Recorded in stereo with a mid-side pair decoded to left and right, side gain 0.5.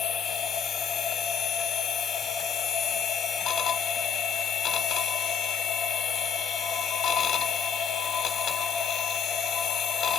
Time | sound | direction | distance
0.0 | a machine running | 60° left | 1.0 m